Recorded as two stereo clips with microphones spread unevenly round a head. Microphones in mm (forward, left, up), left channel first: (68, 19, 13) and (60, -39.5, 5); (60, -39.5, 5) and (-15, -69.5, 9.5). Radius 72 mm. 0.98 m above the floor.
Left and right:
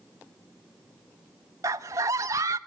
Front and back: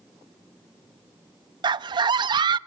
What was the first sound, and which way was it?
A scream, 140° right.